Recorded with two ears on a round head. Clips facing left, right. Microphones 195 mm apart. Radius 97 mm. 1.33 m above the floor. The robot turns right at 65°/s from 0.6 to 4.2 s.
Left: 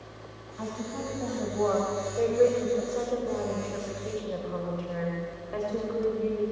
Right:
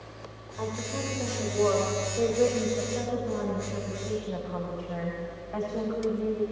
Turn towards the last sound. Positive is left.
turn(degrees=125)